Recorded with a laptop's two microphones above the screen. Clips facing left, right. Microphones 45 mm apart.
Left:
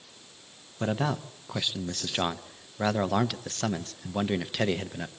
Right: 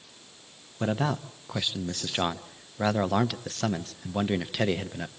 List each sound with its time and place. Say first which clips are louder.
0.8 s a man speaking: right 1 dB; 5° right (ahead or behind), 0.7 m